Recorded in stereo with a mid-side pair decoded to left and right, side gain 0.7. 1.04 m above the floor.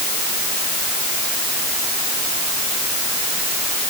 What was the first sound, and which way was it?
Only background noise.